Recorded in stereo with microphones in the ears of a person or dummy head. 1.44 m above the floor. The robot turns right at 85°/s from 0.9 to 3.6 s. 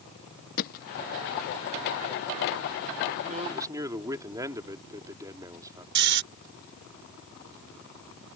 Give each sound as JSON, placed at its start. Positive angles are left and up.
{"t": 0.6, "sound": "hammering", "side_deg": 50}
{"t": 3.3, "sound": "a man speaking", "side_deg": -45}
{"t": 6.0, "sound": "snoring", "side_deg": -60}